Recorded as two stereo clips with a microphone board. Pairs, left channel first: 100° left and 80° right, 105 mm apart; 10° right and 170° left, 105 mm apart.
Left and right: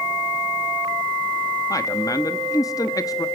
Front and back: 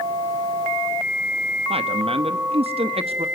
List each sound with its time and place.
1.7 s a man speaking: 155° left, 1.2 m